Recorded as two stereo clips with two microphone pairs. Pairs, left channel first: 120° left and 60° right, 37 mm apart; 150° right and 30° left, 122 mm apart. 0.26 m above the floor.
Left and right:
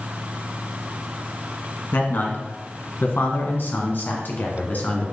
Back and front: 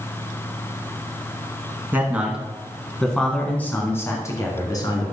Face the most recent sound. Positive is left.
turn(degrees=160)